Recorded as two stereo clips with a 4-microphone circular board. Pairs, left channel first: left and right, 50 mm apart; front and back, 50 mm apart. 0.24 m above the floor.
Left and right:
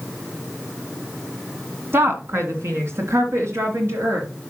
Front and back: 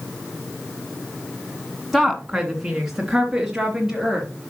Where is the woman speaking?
95° right, 1.8 m; by 4.3 s 105° right, 4 m.